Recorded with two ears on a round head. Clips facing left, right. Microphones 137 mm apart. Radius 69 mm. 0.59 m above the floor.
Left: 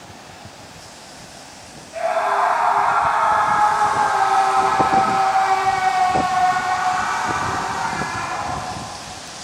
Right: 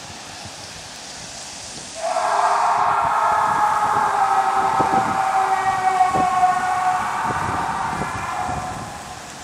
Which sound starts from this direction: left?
A scream, at 1.9 s.